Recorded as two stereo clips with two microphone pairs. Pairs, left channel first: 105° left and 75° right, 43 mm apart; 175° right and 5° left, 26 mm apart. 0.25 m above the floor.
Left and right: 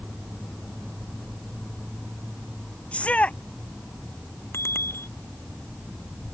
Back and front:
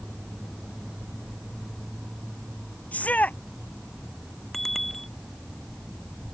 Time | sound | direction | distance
2.9 | a shout | 160° left | ?
4.5 | a bicycle bell | 100° left | ?